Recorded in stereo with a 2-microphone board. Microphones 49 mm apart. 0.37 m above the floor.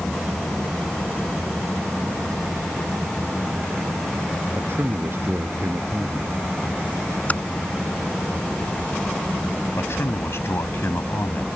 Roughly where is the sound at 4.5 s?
Right.